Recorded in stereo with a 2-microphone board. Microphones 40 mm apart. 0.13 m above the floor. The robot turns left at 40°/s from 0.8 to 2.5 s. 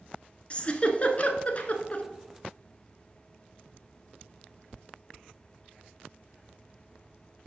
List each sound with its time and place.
0.5 s a giggle: 30° left (ahead or behind), 1.0 m; by 2.0 s 35° left (ahead or behind), 1.0 m